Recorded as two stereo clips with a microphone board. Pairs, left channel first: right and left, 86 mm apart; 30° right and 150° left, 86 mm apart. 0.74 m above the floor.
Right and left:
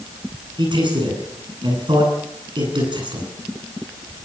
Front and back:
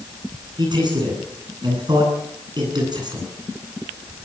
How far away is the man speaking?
About 9.5 m.